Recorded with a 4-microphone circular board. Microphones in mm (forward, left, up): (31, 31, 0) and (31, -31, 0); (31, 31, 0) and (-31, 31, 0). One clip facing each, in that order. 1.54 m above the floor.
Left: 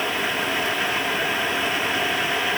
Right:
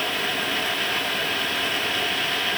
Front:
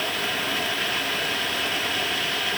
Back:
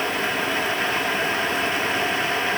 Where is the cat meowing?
No cat meowing in this recording.